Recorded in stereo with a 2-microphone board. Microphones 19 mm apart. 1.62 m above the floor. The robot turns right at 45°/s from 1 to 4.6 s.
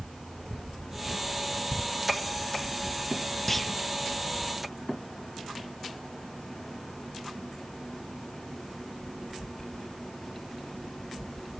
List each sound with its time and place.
3.5 s a clunk: 10° left (ahead or behind), 0.8 m; by 3.7 s centre (ahead or behind), 0.8 m